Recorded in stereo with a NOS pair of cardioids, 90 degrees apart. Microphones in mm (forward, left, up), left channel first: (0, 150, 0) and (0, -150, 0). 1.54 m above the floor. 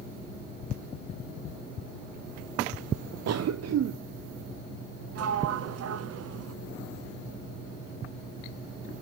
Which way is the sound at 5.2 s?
55° right.